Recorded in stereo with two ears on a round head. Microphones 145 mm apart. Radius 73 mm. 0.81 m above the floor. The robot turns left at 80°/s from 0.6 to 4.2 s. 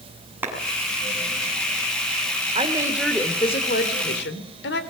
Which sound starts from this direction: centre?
A clap, at 0.4 s.